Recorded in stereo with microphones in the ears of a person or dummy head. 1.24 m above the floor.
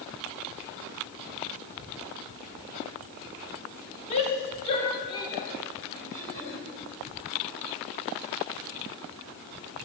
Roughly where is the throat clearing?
Left.